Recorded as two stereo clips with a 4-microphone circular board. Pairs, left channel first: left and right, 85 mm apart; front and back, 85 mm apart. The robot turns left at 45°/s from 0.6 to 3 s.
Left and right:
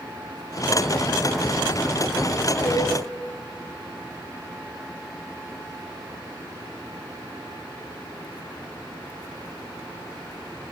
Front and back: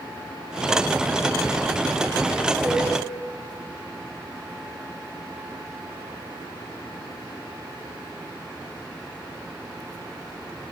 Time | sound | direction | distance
2.6 | a cowbell | 130° left | 1.8 m